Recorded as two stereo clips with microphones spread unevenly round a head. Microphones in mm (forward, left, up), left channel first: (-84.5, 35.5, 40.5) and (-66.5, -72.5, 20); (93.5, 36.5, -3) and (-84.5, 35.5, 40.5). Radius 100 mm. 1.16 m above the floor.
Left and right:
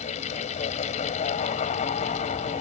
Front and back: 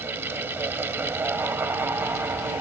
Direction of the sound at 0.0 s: 105° left.